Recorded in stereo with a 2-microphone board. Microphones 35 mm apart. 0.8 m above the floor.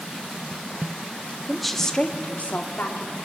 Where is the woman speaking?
5° right (ahead or behind), 1.4 m; by 3.2 s 70° left (ahead or behind), 2 m.